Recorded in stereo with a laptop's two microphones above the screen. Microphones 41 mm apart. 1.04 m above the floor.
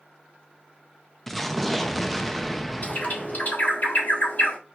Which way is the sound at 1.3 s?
5° left (ahead or behind).